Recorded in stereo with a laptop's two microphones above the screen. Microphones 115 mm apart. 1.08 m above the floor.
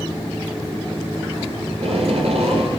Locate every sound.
1.7 s tape being pulled: 75° right (ahead or behind), 5.5 m